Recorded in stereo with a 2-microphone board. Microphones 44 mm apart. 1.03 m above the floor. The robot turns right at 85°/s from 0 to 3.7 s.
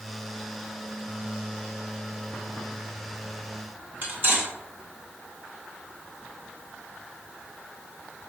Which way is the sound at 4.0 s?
45° right (ahead or behind).